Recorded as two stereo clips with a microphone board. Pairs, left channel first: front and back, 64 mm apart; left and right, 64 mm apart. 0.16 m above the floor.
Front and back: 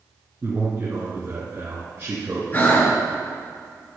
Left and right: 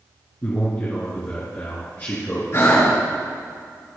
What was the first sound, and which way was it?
A man speaking, 135° left.